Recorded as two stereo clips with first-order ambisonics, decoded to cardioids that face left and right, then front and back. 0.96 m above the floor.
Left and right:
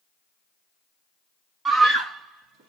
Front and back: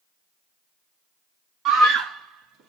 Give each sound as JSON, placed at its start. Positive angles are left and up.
{"t": 1.6, "sound": "a scream", "azimuth_deg": -155, "distance_m": 0.8}